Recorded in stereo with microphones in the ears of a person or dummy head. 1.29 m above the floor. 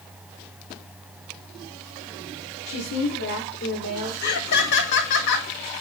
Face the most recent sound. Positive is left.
turn(degrees=60)  # may be behind; listen again after turning